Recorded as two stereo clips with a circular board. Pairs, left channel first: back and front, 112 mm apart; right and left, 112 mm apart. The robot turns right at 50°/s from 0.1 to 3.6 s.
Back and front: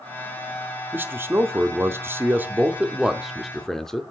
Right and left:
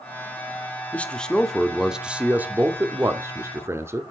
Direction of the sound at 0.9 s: 35° right.